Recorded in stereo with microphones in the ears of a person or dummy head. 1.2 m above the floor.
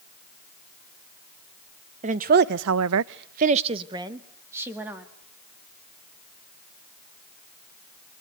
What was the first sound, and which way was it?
A woman speaking, 35° right (ahead or behind).